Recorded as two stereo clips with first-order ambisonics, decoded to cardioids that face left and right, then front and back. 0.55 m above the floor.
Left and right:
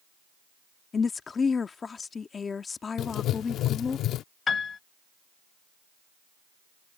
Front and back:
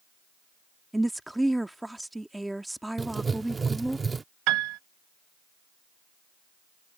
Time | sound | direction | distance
0.9 | a woman speaking | 100° left | ?
3.0 | writing | 110° left | ?
4.5 | a piano | 160° left | ?